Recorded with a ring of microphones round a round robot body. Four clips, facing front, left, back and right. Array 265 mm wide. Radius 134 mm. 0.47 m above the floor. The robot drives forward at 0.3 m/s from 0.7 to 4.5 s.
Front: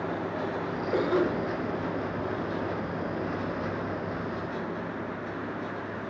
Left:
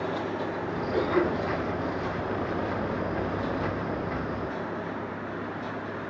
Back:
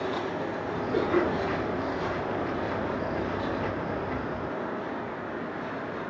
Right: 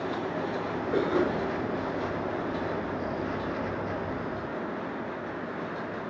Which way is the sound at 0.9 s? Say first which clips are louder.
Left 1 dB, even; 20° right.